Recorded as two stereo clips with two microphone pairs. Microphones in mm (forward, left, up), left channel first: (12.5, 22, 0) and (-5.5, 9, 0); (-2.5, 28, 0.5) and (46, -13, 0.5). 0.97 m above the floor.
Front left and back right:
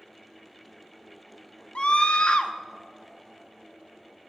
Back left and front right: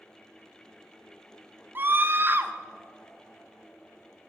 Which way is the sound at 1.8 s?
10° left.